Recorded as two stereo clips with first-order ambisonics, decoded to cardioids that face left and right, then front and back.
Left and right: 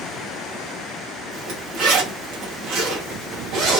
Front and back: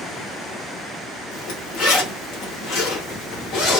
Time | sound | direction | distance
1.3 | a zipper | 45° right | 1.1 m